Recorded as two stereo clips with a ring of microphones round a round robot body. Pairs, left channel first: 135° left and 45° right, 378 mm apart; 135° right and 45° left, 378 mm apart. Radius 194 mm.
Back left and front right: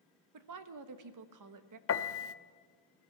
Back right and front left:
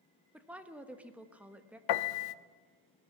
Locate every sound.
0.3 s a woman speaking: 40° right, 1.3 m
1.9 s a piano: 170° right, 0.7 m